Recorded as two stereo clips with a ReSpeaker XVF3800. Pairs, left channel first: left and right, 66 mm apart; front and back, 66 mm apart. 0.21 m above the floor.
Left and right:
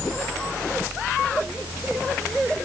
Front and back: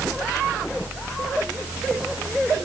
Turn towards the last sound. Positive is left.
No sound to turn to.